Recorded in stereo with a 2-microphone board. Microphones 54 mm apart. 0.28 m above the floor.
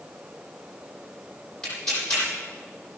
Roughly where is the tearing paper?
Centre.